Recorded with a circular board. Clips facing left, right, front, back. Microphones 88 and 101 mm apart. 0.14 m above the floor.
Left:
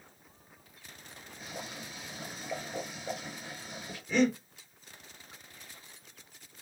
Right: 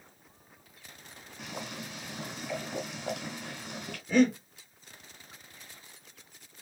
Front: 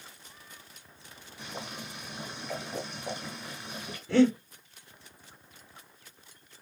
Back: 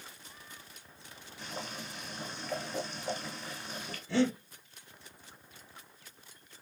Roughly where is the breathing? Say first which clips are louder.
Right 3 dB, front 7 dB; ahead.